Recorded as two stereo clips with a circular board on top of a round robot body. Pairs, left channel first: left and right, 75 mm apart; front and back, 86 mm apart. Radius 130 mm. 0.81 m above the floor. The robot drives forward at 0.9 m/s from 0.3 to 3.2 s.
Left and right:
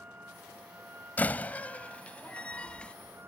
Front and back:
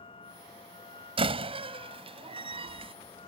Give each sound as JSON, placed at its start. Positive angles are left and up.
{"t": 0.0, "sound": "a vehicle", "azimuth_deg": -20}
{"t": 1.2, "sound": "a door slam", "azimuth_deg": 160}